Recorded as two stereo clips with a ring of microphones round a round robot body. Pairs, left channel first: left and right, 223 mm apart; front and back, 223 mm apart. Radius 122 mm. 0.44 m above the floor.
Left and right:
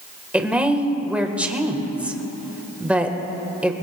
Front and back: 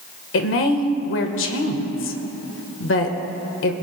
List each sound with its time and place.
0.3 s a woman speaking: 5° right, 1.5 m